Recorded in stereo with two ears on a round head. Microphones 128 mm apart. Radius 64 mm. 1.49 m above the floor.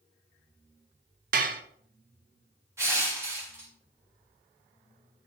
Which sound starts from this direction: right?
Dishes clattering, at 1.3 s.